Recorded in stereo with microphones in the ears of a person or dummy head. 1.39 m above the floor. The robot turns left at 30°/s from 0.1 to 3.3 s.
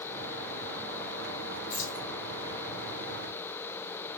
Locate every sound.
1.7 s keys jangling: 50° left (ahead or behind), 2 m; by 2.0 s 40° left (ahead or behind), 2 m